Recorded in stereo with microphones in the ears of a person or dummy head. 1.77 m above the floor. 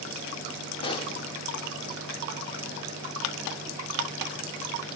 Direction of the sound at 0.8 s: 25° left (ahead or behind).